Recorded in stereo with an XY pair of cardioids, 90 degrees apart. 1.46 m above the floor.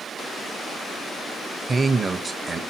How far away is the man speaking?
About 1.1 m.